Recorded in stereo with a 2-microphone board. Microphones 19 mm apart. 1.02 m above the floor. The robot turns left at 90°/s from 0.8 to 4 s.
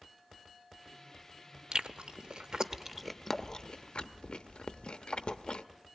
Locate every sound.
1.7 s chewing: 55° right (ahead or behind), 0.7 m; by 5.7 s 75° left (ahead or behind), 0.7 m